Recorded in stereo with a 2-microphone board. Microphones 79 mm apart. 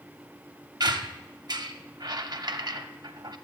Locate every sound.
0.8 s a squeak: 60° right (ahead or behind), 0.7 m